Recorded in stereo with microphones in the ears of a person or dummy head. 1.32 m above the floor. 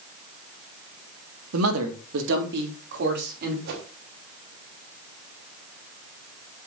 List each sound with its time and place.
1.5 s a man speaking: 80° right, 1.7 m; by 3.5 s 55° right (ahead or behind), 3.5 m
3.6 s a whoosh: 65° right (ahead or behind), 3.5 m